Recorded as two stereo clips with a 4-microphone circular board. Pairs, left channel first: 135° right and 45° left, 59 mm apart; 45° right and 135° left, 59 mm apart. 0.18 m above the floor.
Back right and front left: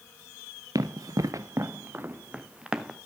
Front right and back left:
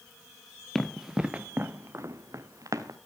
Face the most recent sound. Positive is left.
turn(degrees=125)